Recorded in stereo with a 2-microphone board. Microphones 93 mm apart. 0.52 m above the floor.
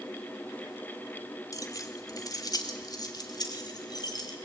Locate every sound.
1.5 s keys jangling: 40° left (ahead or behind), 1.3 m; by 4.3 s 50° left (ahead or behind), 2.5 m